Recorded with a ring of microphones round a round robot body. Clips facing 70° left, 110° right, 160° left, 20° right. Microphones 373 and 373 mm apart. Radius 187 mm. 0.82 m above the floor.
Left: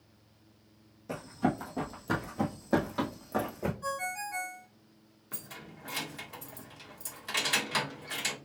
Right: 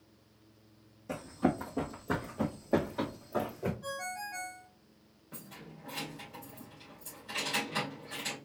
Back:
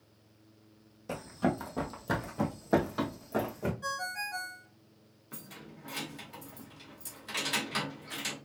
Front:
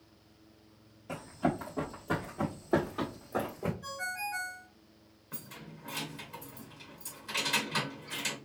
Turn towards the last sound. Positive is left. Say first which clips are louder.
# even, even
turn(degrees=75)